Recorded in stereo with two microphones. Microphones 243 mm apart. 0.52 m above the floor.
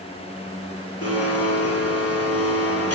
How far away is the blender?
About 9 m.